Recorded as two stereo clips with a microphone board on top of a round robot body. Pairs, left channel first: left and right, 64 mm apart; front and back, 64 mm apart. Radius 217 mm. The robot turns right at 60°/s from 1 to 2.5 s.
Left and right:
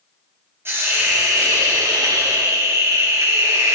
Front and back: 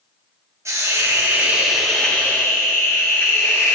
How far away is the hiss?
About 4 m.